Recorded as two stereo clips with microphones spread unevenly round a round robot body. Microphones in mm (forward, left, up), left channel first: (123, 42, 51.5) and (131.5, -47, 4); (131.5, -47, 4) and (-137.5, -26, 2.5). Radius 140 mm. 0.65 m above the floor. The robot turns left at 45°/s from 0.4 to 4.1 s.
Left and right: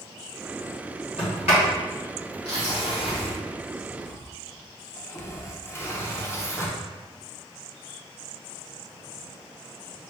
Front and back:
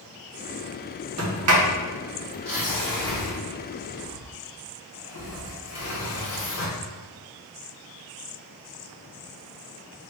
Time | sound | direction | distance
1.2 | a sliding door | 155° left | 1.1 m